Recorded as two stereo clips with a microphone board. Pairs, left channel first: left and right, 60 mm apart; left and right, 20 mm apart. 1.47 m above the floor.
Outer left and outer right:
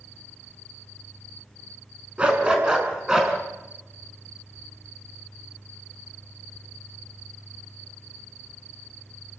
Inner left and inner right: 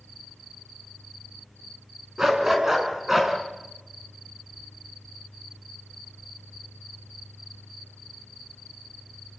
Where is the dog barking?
20° right (ahead or behind), 5 m; by 3.3 s 10° right (ahead or behind), 5 m.